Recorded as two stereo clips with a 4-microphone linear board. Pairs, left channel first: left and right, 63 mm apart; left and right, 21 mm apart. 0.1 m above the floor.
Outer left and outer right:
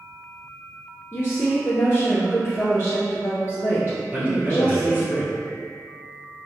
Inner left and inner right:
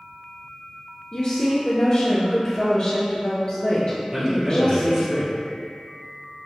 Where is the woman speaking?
35° left (ahead or behind), 1.4 m.